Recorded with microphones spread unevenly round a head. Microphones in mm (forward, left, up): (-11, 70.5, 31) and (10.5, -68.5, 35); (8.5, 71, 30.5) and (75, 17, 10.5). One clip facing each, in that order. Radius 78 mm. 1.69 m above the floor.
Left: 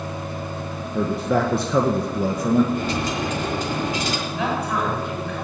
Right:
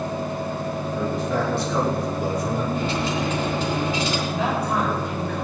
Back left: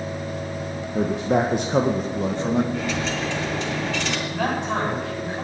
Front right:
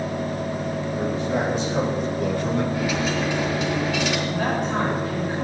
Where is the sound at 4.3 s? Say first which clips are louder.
Right 1 dB, front right 1 dB; 135° left, 7.5 m.